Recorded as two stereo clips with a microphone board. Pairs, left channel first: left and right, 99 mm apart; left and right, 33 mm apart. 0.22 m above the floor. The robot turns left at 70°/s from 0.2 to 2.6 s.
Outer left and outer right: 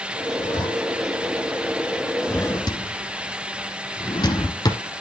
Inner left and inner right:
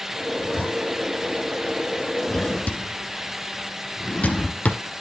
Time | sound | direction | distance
0.4 | a zipper | 65° left (ahead or behind) | 3 m
2.3 | a drawer | 25° left (ahead or behind) | 1.1 m